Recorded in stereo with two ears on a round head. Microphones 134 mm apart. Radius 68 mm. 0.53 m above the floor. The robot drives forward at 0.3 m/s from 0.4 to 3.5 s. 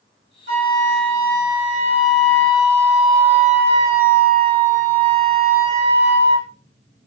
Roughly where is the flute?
Right.